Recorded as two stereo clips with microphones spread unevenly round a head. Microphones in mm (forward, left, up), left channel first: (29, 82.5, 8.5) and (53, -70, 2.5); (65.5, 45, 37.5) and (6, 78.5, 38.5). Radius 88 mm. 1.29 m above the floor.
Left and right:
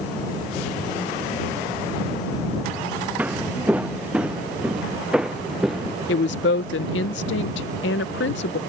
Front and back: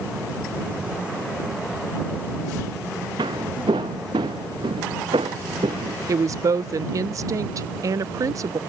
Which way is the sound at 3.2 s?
165° right.